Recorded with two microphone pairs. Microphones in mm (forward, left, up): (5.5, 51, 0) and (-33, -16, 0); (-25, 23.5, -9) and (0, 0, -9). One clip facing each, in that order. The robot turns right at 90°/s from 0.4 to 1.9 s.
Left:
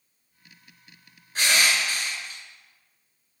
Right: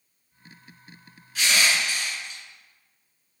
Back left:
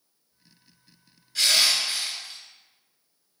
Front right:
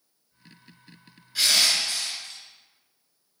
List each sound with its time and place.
1.4 s crushing: 25° left, 1.6 m; by 2.4 s 75° left, 1.6 m